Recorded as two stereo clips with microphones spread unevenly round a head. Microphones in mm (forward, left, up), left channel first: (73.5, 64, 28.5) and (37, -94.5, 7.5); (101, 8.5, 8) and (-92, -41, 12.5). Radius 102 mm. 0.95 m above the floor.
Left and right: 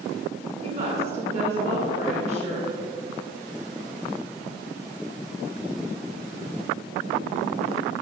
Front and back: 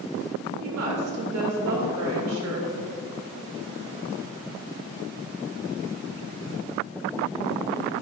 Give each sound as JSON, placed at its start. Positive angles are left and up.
{"t": 0.6, "sound": "a woman speaking", "azimuth_deg": -160, "distance_m": 3.0}